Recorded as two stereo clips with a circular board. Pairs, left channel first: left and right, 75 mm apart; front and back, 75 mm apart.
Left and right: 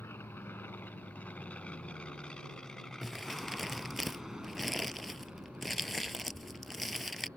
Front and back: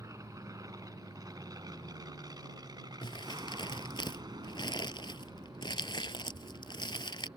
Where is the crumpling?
Straight ahead.